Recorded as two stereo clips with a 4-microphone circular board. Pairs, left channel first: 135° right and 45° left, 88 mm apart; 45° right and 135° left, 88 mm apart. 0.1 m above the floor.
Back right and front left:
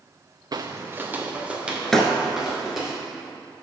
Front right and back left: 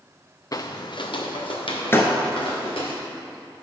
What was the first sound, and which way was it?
Footsteps, 5° left.